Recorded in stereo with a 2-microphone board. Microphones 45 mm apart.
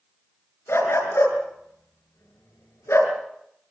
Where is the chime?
No chime in this recording.